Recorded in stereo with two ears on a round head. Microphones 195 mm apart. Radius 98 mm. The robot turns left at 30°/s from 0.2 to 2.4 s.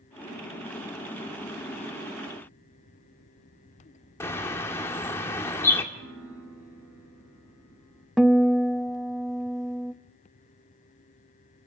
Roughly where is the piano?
Right.